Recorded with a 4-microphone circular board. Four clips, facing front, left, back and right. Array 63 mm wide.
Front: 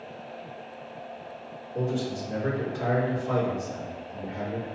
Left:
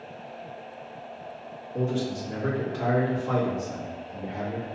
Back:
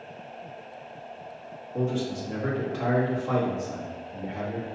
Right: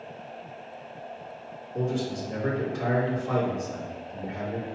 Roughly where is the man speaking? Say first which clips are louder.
Left 1 dB, back 1 dB; behind left.